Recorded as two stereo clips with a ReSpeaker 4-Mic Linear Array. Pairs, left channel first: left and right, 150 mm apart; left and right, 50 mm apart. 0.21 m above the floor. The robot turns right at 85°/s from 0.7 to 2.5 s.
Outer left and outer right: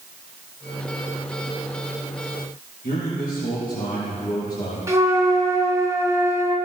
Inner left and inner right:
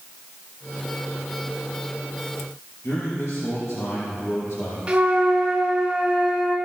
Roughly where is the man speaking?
Left.